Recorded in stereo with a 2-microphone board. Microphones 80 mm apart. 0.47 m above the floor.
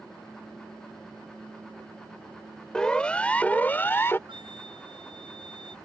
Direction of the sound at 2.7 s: 10° left (ahead or behind).